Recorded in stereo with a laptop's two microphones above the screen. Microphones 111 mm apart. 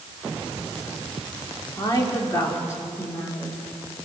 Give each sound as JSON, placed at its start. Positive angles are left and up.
{"t": 1.8, "sound": "a woman speaking", "side_deg": 30, "distance_m": 3.0}